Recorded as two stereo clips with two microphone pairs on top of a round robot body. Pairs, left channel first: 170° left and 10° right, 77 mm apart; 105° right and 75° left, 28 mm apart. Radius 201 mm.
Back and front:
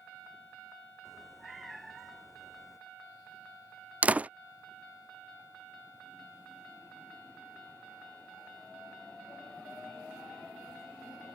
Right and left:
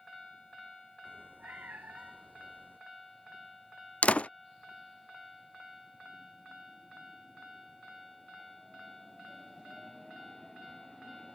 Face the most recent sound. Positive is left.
turn(degrees=-80)